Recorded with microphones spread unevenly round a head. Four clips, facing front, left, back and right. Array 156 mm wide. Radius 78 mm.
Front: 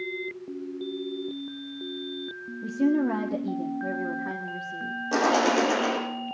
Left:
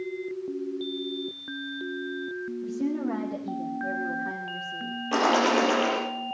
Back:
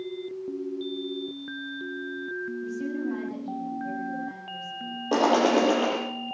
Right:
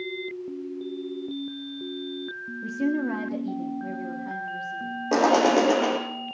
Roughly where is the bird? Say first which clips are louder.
Right 3 dB, back 2 dB; behind right.